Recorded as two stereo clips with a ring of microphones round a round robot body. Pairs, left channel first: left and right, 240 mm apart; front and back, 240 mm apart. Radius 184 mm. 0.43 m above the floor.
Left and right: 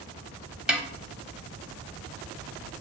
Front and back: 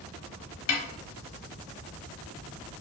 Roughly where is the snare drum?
Ahead.